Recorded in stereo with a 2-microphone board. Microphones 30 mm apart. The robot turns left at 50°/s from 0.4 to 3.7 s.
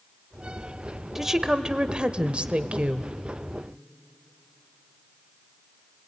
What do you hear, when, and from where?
1.1 s a woman speaking: 20° right, 1.0 m; by 3.1 s 115° right, 1.0 m